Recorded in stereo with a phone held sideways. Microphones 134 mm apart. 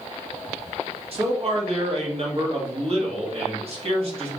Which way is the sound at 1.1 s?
50° right (ahead or behind).